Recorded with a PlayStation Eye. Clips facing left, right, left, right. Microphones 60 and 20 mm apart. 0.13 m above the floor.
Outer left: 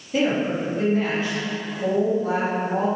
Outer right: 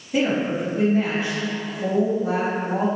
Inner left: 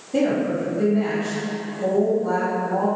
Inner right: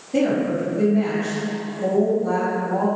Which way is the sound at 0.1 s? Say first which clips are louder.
Even, inner right 1 dB; 10° right (ahead or behind).